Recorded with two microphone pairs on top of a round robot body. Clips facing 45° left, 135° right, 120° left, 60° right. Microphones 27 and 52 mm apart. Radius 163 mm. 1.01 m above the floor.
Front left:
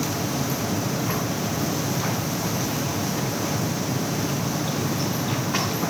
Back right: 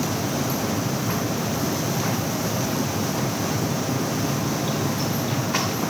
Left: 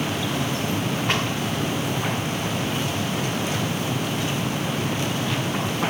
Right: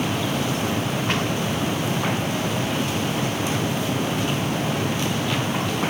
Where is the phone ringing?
I don't hear a phone ringing.